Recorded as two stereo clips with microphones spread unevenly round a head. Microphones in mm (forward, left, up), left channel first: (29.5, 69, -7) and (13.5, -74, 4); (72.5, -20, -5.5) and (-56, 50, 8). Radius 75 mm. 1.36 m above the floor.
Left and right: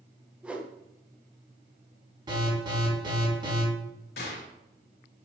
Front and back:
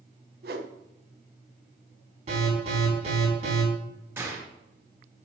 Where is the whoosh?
Straight behind, 1.0 m.